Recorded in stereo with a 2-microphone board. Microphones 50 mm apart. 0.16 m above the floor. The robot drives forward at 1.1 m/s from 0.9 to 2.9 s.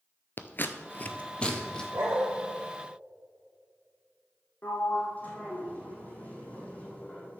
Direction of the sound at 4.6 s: 30° left (ahead or behind).